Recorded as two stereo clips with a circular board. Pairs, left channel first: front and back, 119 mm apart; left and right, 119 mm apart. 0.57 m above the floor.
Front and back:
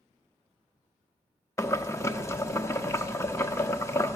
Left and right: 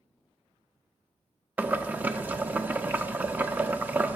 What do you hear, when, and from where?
1.6 s boiling: 30° right, 0.6 m